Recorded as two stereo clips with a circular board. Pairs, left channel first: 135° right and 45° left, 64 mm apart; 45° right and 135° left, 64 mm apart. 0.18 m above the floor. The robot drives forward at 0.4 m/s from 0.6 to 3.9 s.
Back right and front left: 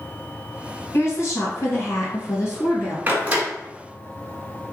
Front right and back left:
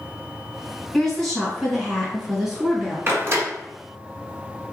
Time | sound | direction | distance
0.9 | a woman speaking | 125° right | 1.6 m
3.1 | a door slam | 95° left | 1.2 m